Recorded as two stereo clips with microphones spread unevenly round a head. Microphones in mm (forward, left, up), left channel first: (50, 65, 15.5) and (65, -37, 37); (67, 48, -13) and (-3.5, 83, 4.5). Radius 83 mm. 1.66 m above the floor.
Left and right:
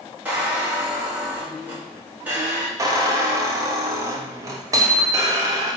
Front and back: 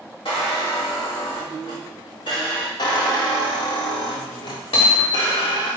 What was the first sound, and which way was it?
A squeak, 15° right.